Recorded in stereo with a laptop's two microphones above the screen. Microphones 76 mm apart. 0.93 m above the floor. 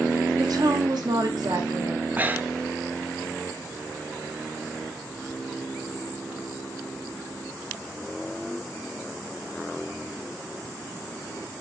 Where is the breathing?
25° right (ahead or behind), 0.5 m.